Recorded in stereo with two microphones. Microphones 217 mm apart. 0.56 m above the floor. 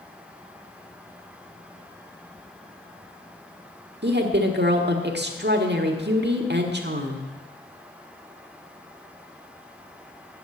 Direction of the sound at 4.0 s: 50° right (ahead or behind).